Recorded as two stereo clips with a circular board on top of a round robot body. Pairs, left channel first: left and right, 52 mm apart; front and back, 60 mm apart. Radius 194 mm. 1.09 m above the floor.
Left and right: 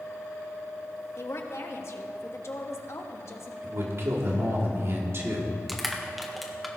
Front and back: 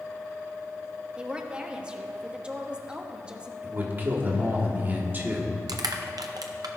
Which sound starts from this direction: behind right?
A man speaking, at 3.6 s.